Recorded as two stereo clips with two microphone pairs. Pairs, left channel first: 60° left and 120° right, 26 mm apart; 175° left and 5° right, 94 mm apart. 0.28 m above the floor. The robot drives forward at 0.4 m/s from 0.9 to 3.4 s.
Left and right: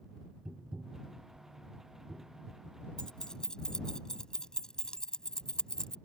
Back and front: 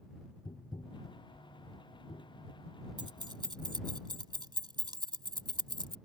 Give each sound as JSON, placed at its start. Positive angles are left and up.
{"t": 0.5, "sound": "tapping", "azimuth_deg": -155}
{"t": 3.0, "sound": "keys jangling", "azimuth_deg": 10}